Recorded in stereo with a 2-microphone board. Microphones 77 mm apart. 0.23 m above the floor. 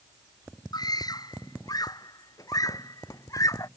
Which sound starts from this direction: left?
A scream, at 0.7 s.